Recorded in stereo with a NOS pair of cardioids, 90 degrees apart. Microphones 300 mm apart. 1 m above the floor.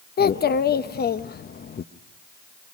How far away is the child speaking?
About 0.7 m.